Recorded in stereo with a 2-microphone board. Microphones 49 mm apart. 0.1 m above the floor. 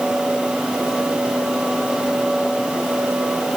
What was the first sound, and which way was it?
Only background noise.